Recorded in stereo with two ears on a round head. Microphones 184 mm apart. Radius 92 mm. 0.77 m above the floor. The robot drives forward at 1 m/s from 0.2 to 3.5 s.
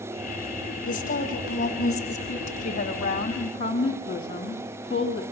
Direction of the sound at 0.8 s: 45° left (ahead or behind).